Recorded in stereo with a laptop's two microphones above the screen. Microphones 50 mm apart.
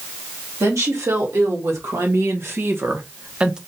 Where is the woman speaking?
75° right (ahead or behind), 2 m; by 3.6 s 15° right (ahead or behind), 0.6 m.